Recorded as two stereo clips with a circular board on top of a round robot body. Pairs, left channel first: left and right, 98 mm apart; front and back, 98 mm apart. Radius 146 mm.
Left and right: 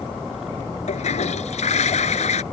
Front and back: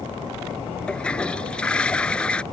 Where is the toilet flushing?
80° left.